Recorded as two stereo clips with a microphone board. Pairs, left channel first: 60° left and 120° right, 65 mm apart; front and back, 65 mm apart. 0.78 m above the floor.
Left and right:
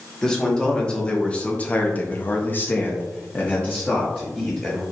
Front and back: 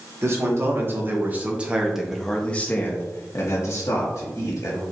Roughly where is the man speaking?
Behind left.